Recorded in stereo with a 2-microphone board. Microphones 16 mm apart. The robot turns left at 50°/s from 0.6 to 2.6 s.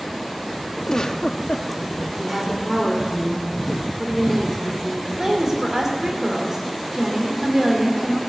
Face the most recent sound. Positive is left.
turn(degrees=-40)  # may be behind; listen again after turning